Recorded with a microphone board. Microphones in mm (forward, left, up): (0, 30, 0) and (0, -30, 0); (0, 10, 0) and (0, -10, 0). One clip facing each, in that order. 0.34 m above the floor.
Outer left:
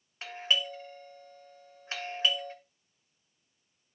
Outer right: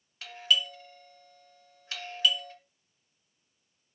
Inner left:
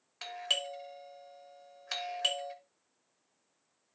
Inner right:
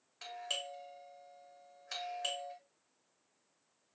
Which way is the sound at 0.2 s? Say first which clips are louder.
Outer right 2 dB, inner left 7 dB; 30° left (ahead or behind).